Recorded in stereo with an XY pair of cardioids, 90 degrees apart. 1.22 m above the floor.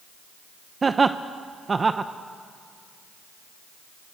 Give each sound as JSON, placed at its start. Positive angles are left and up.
{"t": 0.8, "sound": "laughter", "azimuth_deg": -35, "distance_m": 0.8}